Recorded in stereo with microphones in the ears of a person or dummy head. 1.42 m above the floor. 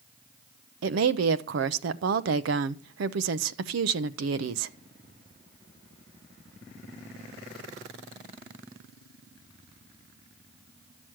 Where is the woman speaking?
65° right (ahead or behind), 0.7 m.